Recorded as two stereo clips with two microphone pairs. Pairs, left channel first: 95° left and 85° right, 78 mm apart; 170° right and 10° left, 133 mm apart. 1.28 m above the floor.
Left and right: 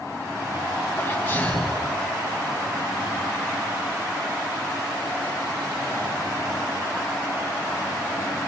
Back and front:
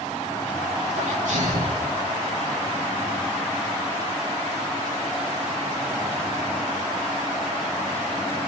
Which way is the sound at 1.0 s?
30° left.